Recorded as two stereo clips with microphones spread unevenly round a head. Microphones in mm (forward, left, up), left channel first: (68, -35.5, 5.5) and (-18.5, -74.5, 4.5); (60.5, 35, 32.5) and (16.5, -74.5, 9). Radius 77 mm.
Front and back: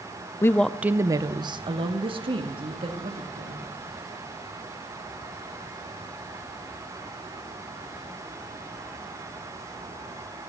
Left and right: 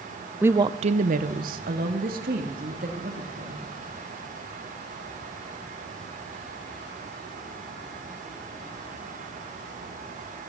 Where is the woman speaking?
30° right, 0.6 m; by 3.6 s 135° right, 3 m.